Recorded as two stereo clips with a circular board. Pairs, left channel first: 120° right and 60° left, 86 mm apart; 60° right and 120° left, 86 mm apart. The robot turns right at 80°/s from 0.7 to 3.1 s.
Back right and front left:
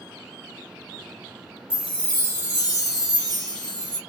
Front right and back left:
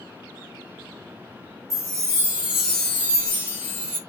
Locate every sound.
1.7 s a chime: 140° left, 1.8 m; by 4.0 s 110° right, 1.8 m